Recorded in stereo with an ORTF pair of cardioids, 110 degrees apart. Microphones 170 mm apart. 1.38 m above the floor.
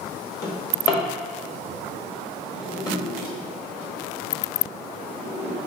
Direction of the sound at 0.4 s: 25° left.